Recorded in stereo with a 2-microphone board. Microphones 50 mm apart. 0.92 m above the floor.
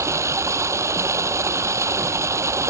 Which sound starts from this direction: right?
Running water, at 0.0 s.